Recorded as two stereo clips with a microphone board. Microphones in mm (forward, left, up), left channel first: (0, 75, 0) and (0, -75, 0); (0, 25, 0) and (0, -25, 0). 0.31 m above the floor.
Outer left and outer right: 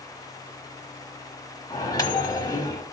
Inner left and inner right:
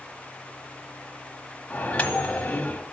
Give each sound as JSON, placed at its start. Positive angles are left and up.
{"t": 1.7, "sound": "a microwave", "side_deg": 25, "distance_m": 1.3}